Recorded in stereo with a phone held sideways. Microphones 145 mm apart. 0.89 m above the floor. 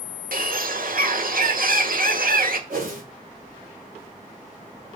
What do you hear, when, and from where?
0.3 s a bird: 75° right (ahead or behind), 1.2 m
2.7 s a whoosh: 75° right (ahead or behind), 3.5 m